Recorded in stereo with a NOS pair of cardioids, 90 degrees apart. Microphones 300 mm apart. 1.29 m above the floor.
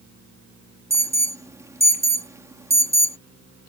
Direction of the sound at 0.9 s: 10° right.